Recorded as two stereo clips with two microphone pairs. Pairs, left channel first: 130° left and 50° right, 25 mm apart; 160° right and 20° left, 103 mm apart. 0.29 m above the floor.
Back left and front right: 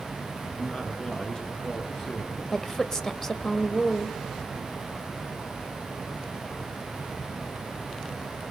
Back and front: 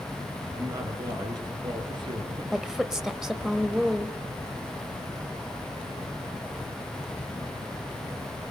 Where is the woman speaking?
95° left, 1.1 m.